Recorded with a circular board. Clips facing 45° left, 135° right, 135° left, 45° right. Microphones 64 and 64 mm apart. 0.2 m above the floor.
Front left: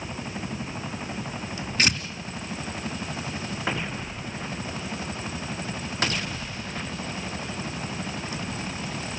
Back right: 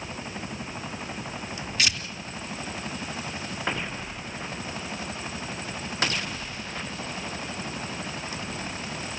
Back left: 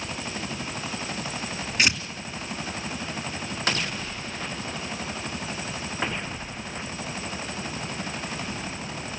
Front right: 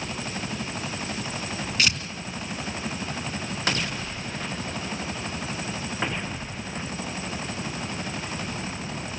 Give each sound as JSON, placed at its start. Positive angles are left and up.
{"t": 1.8, "sound": "tearing paper", "azimuth_deg": 75, "distance_m": 2.5}